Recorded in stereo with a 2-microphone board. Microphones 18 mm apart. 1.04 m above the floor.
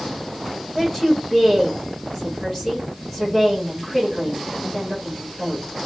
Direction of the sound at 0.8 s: 5° left (ahead or behind).